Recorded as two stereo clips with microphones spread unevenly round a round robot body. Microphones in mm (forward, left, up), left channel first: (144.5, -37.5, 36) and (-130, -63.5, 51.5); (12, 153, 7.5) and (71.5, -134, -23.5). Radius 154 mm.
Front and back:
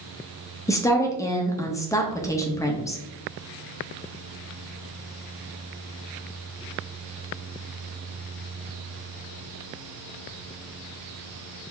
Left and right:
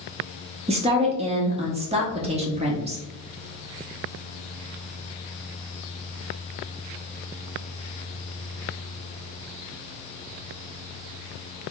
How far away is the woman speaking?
About 0.9 m.